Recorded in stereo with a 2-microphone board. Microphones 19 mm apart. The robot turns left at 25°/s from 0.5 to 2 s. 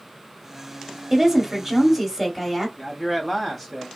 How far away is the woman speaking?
About 1.0 m.